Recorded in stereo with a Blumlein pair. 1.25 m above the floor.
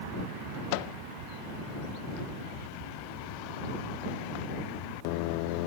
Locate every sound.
0.7 s a microwave: 45° left